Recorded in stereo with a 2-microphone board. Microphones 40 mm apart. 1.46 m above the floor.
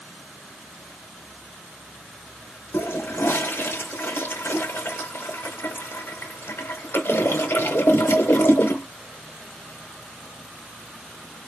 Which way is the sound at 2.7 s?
70° left (ahead or behind).